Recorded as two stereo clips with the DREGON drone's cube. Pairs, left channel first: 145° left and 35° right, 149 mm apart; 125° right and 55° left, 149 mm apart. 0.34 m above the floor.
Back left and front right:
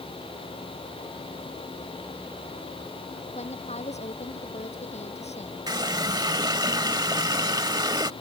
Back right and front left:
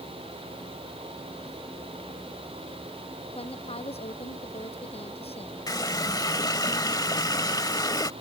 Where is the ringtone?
I don't hear a ringtone.